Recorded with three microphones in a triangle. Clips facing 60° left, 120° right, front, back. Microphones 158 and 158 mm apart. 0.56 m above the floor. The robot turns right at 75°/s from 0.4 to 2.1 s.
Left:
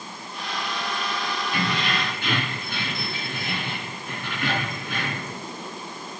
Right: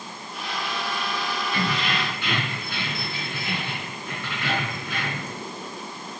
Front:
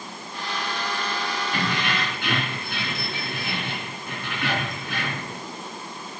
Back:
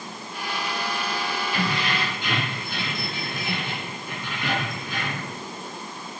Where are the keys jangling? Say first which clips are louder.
Even, even; 15° right, 4 m; by 5.4 s 25° left, 4 m.